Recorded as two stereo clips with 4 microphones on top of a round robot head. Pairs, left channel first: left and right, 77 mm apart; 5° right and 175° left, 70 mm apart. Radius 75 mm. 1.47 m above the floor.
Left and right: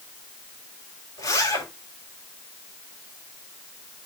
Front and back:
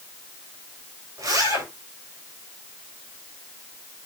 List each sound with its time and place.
1.2 s a zipper: 135° left, 4 m